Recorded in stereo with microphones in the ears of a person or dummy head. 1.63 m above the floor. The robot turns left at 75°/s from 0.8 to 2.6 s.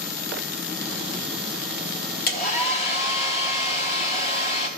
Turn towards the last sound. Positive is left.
turn(degrees=40)  # may be behind; listen again after turning